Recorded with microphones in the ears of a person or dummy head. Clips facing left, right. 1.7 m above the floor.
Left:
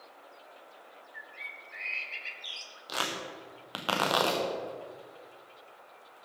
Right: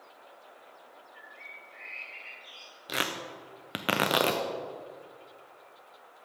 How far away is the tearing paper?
About 0.8 m.